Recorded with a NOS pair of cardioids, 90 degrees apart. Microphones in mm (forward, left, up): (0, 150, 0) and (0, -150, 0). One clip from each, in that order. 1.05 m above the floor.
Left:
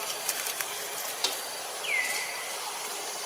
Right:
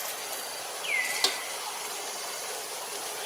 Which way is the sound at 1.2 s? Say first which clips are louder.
Even; 30° right.